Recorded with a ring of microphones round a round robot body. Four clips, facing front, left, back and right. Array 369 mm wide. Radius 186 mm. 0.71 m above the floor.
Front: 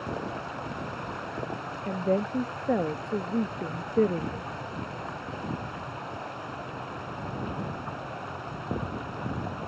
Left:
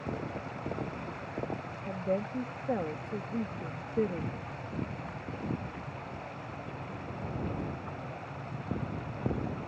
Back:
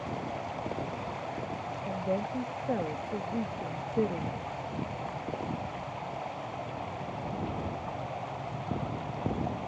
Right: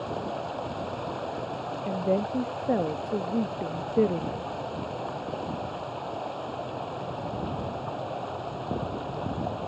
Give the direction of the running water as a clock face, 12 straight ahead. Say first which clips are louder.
Right 6 dB, front 2 dB; 2 o'clock.